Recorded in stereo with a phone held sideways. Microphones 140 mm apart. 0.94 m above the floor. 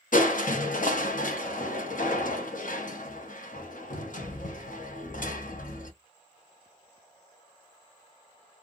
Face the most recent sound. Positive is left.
turn(degrees=70)  # may be behind; listen again after turning